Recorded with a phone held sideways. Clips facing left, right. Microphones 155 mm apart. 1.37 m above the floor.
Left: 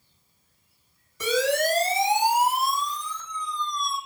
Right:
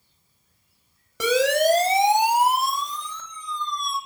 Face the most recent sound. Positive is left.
turn(degrees=-60)  # may be behind; listen again after turning